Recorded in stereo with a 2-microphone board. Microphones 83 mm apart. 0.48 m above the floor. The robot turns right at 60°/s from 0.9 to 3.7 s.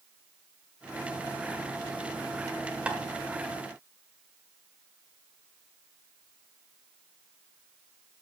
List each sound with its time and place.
2.9 s tapping: 15° right (ahead or behind), 1.2 m; by 3.0 s 20° right (ahead or behind), 1.2 m